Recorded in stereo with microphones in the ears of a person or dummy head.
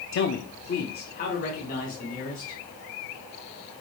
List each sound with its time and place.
0.1 s a man speaking: 60° left (ahead or behind), 0.7 m; by 2.6 s 45° left (ahead or behind), 3 m